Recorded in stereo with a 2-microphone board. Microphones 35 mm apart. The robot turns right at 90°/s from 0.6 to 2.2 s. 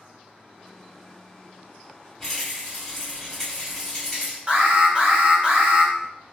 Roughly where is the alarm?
Right.